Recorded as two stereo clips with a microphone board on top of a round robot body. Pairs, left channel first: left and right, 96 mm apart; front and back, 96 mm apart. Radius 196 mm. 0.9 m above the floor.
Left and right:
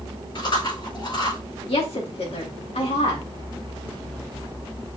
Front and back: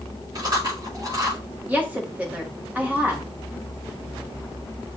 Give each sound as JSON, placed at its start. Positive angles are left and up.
{"t": 0.3, "sound": "chewing", "azimuth_deg": 130, "distance_m": 5.5}
{"t": 1.7, "sound": "a woman speaking", "azimuth_deg": 105, "distance_m": 2.5}